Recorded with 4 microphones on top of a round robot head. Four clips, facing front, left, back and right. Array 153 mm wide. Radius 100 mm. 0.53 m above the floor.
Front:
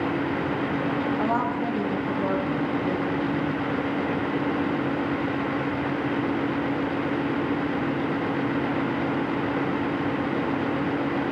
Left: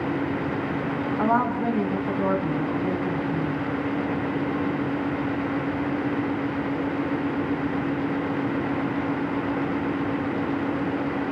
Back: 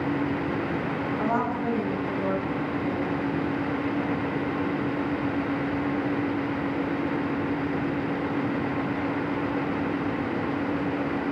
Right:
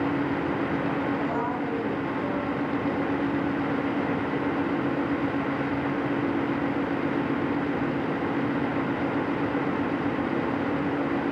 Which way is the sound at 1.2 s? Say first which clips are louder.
Left 5 dB, front 1 dB; 75° left.